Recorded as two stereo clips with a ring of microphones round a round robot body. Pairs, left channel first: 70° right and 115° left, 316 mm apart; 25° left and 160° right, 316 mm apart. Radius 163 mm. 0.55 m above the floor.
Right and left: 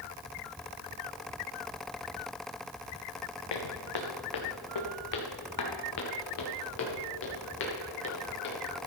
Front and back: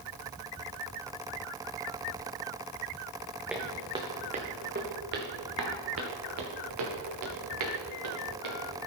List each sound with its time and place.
3.5 s footsteps: 70° right, 1.7 m; by 8.9 s 125° right, 4.5 m